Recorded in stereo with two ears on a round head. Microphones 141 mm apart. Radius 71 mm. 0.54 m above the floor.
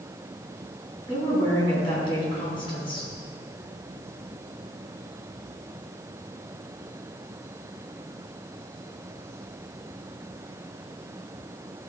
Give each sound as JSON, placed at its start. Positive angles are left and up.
{"t": 1.1, "sound": "a woman speaking", "side_deg": 30, "distance_m": 4.5}